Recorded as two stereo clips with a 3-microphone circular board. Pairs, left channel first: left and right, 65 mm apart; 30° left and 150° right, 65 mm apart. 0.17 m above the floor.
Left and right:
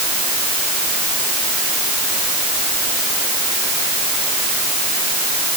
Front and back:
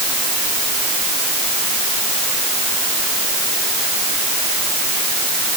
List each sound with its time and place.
Only background noise.